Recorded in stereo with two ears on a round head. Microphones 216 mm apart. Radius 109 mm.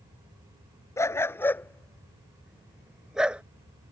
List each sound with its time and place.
1.0 s a dog barking: 10° left (ahead or behind); by 3.4 s 5° right (ahead or behind)